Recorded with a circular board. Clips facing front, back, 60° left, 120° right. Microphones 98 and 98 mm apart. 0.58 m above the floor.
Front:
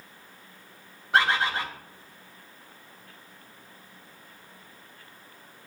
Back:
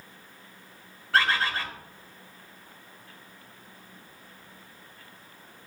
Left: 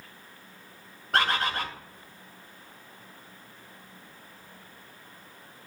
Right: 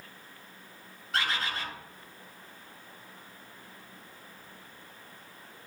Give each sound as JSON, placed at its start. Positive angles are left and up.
{"t": 1.1, "sound": "a bird", "azimuth_deg": 70, "distance_m": 1.0}